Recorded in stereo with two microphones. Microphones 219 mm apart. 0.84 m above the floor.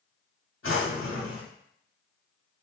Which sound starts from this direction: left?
A drawer, at 0.6 s.